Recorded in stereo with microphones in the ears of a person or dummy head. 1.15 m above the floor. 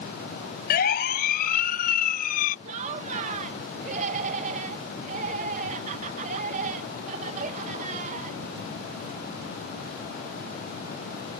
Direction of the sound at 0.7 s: 55° left (ahead or behind).